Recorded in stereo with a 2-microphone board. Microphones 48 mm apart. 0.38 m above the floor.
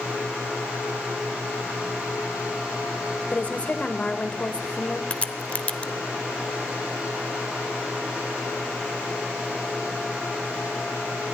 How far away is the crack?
About 0.8 m.